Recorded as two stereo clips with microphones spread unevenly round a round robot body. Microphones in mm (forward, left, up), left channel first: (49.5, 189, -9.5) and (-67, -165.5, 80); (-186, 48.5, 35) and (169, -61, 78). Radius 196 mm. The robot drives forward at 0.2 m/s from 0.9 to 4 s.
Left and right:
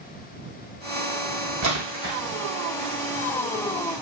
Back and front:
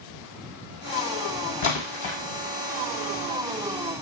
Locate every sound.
1.6 s a splash: 150° right, 1.8 m